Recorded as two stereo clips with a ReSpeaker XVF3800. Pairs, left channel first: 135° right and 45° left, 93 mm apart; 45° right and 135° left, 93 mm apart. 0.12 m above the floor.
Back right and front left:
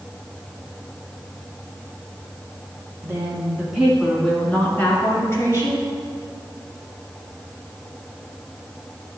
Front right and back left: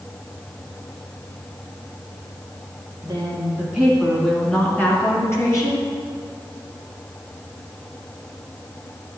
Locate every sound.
3.0 s a woman speaking: 100° left, 1.8 m; by 5.9 s 85° right, 2.5 m